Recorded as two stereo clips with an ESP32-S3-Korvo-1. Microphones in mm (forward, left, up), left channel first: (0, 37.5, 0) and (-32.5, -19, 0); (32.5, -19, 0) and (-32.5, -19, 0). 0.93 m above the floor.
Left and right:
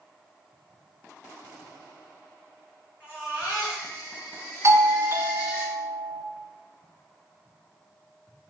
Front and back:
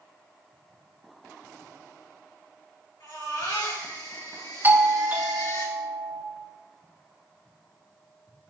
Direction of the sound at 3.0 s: Straight ahead.